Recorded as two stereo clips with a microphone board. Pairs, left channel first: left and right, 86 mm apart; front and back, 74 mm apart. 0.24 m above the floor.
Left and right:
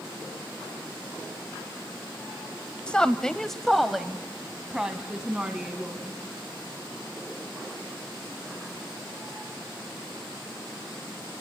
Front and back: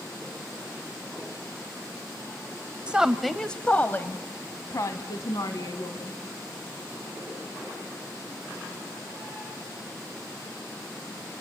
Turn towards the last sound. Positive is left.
turn(degrees=-15)